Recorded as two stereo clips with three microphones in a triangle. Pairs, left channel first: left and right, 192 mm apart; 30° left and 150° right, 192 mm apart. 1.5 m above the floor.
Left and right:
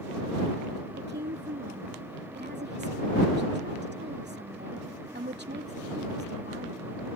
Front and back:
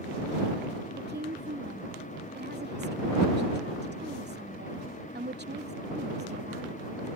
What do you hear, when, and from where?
1.0 s a woman speaking: 120° right